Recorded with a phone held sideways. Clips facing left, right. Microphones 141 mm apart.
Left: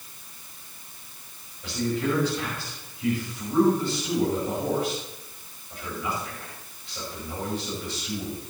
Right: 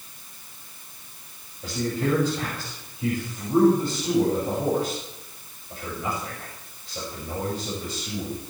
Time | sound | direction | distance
1.6 | a man speaking | 35° right (ahead or behind) | 6 m